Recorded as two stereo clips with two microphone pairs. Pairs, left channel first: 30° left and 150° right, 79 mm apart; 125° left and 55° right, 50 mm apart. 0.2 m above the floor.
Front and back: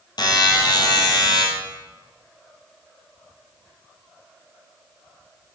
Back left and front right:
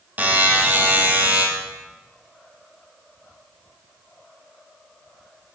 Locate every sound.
0.2 s a buzzer: 5° left, 2.5 m